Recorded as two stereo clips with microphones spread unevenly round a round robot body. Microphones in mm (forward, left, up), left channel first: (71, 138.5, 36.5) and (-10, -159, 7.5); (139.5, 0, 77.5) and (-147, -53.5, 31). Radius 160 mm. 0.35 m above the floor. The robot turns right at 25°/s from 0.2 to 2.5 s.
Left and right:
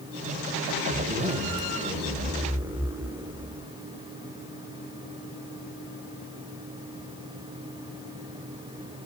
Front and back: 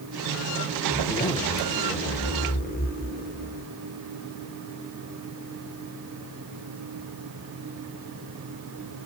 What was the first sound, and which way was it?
A zipper, 75° right.